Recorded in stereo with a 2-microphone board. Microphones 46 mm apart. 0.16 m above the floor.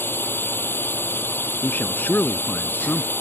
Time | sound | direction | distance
0.0 | a drone | 50° left (ahead or behind) | ?
1.6 | a man speaking | 40° left (ahead or behind) | ?